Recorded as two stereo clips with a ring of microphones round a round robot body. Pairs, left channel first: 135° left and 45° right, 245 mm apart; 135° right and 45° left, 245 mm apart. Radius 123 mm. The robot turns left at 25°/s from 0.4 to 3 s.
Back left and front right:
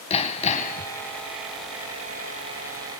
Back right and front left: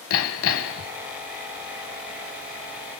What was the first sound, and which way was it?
Hammering, 160° right.